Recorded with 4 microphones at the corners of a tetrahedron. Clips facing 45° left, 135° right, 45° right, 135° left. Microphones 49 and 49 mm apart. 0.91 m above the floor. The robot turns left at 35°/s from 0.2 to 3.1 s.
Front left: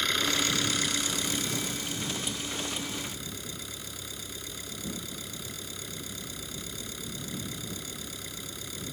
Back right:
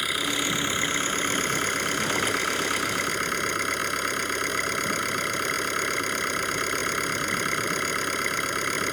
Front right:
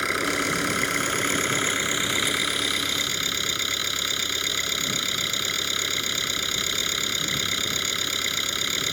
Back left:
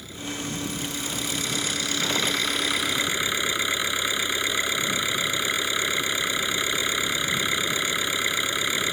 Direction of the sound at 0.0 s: 55° right.